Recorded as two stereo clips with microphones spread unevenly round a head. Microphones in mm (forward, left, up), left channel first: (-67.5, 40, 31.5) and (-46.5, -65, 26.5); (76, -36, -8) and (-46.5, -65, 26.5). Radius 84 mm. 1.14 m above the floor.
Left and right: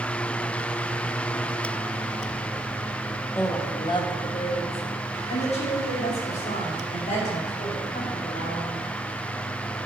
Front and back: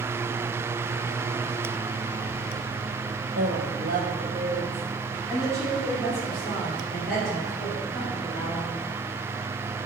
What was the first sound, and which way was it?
A woman speaking, 170° left.